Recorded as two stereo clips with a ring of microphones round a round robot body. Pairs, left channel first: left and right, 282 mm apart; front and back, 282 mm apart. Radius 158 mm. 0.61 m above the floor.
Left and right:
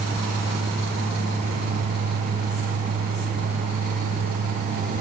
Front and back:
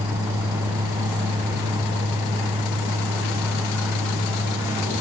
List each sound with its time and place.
Only background noise.